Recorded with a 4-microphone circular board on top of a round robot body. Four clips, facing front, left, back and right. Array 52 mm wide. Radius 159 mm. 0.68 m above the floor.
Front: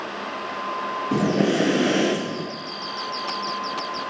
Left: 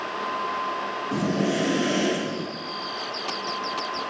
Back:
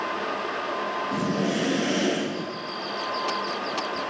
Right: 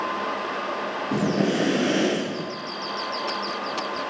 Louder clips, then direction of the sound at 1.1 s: Right 2 dB, front 8 dB; 25° right.